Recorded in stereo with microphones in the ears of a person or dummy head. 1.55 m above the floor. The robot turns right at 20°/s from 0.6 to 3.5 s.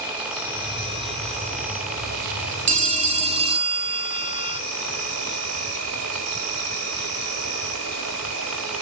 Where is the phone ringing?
40° right (ahead or behind), 0.7 m; by 4.6 s 30° right (ahead or behind), 0.7 m.